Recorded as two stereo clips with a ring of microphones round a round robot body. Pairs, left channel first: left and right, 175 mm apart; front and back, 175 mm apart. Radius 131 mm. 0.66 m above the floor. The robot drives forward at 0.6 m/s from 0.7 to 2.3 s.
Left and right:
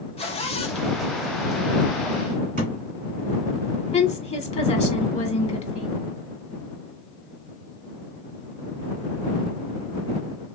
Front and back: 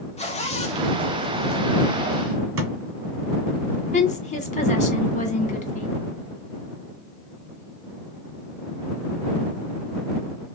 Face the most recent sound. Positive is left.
turn(degrees=45)